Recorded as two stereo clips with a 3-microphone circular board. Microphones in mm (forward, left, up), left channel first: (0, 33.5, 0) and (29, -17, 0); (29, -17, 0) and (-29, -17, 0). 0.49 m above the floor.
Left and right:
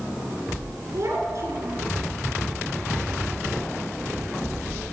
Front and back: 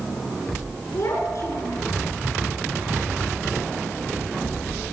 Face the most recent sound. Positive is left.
turn(degrees=-25)